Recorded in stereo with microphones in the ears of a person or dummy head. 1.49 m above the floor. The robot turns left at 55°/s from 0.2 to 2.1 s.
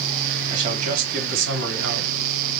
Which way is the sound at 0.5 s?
30° right.